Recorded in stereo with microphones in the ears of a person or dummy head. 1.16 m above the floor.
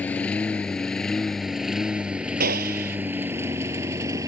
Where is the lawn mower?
5° left (ahead or behind); by 4.3 s 25° right (ahead or behind).